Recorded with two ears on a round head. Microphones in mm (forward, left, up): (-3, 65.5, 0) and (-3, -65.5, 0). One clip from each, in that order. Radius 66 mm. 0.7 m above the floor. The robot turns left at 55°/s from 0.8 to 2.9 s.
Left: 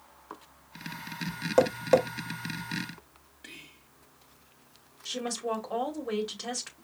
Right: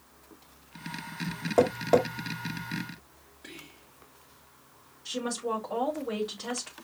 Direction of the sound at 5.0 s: 45° left (ahead or behind).